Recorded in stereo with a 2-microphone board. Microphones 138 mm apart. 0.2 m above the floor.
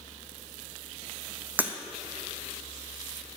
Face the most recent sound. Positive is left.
turn(degrees=-15)  # may be behind; listen again after turning